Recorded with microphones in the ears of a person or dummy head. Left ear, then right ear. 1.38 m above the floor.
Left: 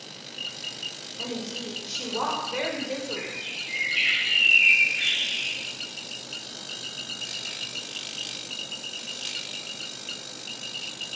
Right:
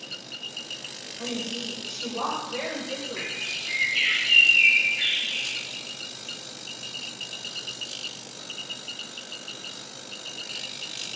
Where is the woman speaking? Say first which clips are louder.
Right 2 dB; 70° left (ahead or behind), 1.3 m.